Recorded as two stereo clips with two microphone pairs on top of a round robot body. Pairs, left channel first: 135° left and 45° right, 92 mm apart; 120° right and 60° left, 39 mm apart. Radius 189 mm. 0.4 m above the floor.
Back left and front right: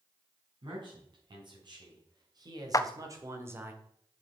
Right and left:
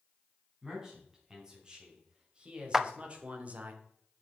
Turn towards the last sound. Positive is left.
turn(degrees=120)